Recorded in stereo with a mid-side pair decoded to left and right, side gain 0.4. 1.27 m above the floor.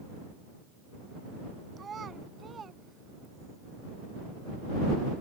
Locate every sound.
1.8 s a child speaking: 45° right